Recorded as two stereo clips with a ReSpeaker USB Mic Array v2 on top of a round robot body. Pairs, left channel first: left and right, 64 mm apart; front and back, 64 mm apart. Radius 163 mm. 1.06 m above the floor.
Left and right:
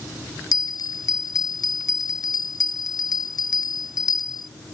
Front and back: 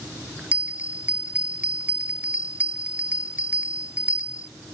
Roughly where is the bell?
Left.